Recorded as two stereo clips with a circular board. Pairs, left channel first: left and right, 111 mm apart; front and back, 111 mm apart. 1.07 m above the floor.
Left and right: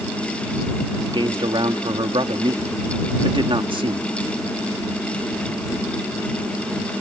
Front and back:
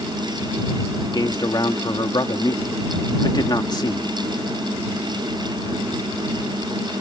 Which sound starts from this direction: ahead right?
A man speaking, at 1.0 s.